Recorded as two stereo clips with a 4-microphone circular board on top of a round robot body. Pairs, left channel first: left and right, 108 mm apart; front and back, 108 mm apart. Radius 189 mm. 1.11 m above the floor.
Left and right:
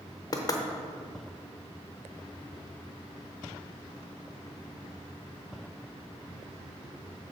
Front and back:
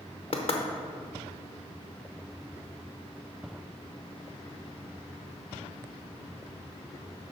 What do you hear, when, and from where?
0.3 s knocking: 35° left, 0.8 m